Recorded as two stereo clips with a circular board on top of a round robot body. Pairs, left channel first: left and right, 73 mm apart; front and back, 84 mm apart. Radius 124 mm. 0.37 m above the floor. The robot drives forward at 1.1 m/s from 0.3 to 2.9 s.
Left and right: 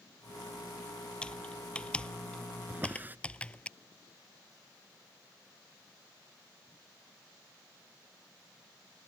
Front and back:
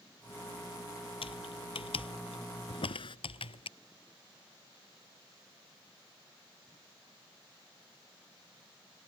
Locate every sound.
1.2 s typing on a keyboard: 10° left; by 3.7 s 15° left
2.7 s a drawer: 25° right